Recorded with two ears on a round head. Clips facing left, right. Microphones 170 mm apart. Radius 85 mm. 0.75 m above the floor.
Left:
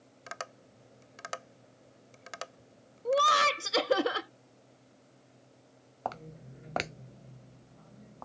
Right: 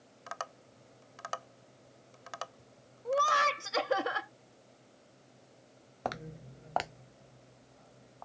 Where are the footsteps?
25° right (ahead or behind); by 8.2 s 60° left (ahead or behind).